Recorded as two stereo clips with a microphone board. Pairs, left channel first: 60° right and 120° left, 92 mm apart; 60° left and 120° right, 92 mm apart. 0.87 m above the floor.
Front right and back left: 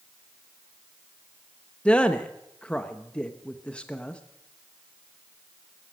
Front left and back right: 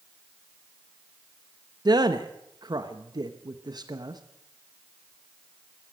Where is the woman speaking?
135° right, 0.9 m.